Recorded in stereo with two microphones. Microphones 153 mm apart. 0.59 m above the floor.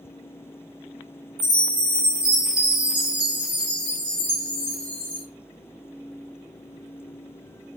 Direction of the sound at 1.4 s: 30° right (ahead or behind).